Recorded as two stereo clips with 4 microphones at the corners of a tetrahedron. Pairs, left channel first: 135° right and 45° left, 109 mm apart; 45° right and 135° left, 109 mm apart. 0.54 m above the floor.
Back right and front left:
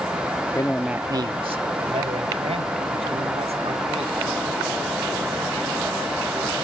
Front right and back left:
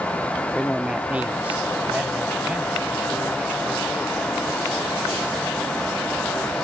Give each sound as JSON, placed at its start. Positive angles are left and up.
{"t": 0.6, "sound": "a man speaking", "azimuth_deg": -130}